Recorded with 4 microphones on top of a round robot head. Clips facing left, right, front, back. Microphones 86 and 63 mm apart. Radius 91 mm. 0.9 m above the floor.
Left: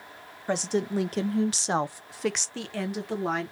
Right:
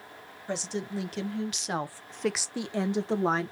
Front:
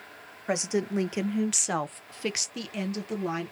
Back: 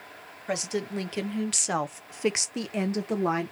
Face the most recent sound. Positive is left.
turn(degrees=-135)